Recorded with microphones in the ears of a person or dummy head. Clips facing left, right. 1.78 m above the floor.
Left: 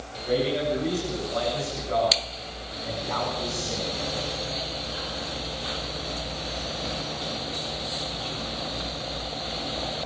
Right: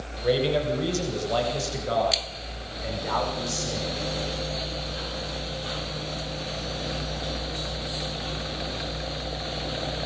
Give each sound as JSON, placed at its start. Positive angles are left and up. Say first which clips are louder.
{"t": 0.2, "sound": "a man speaking", "louder": "right 1 dB", "side_deg": -80, "distance_m": 9.0}